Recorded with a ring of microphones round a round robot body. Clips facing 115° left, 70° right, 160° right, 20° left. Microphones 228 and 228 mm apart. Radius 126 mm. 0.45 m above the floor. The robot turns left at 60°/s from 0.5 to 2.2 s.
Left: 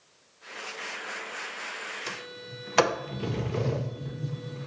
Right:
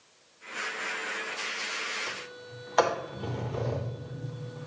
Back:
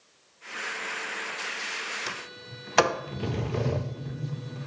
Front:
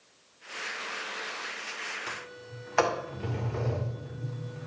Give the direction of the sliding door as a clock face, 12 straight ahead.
6 o'clock.